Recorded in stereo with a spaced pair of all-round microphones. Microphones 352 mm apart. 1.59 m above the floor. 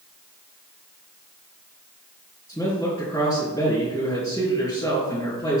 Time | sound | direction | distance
2.5 | a man speaking | 10° left (ahead or behind) | 3.5 m